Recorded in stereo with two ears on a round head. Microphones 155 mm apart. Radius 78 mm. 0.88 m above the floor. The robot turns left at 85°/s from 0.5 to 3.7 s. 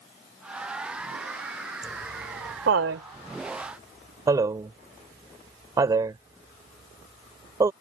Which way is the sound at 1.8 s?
Centre (ahead or behind).